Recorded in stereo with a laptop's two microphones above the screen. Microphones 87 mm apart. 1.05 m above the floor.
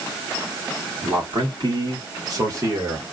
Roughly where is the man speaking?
Right.